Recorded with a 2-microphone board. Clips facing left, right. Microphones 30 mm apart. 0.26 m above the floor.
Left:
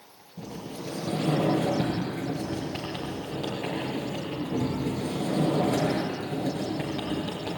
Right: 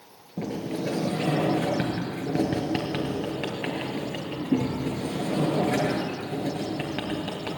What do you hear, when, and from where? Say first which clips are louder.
0.4 s a sliding door: right 8 dB; 75° right (ahead or behind), 4 m